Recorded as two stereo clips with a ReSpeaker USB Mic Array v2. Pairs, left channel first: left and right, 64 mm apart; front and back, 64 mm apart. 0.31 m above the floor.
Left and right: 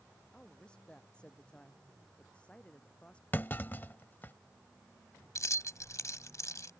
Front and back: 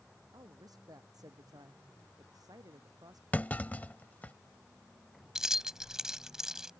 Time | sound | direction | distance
0.3 | a woman speaking | 165° left | ?
3.3 | a clunk | 50° left | ?
5.3 | keys jangling | 100° left | ?